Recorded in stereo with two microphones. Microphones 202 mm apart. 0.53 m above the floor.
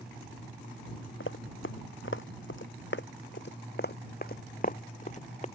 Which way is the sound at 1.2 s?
75° left (ahead or behind).